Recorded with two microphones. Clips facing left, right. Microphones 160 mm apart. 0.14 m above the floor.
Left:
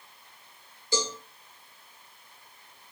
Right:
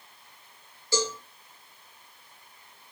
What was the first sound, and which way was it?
A cowbell, 20° left (ahead or behind).